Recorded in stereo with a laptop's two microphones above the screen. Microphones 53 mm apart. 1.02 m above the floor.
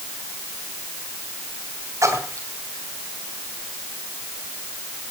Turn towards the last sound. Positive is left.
turn(degrees=-80)